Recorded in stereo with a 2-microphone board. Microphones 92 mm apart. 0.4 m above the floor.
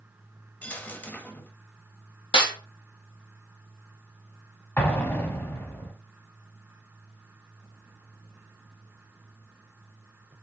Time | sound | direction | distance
0.6 | a dropped coin | 20° left (ahead or behind) | 0.6 m
2.3 | a snare drum | 70° left (ahead or behind) | 1.2 m
4.8 | an explosion | 20° left (ahead or behind) | 0.9 m